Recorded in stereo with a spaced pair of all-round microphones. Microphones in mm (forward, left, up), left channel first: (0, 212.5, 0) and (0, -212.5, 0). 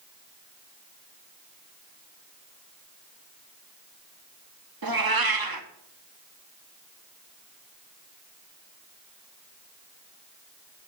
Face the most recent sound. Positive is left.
turn(degrees=-55)  # may be behind; listen again after turning